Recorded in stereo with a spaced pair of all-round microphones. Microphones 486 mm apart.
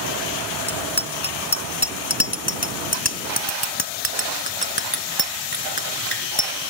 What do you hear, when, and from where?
0.7 s a bicycle bell: 50° left (ahead or behind); by 6.5 s 55° left (ahead or behind)